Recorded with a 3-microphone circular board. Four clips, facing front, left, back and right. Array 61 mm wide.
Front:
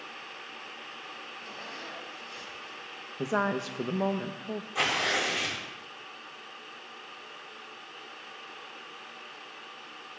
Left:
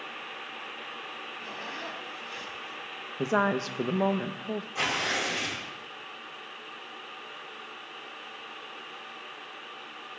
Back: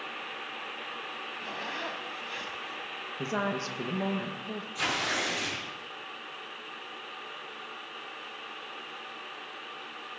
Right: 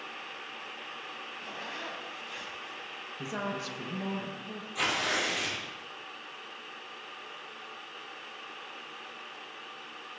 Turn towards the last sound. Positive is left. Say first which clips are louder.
# right 1 dB, front 3 dB
turn(degrees=10)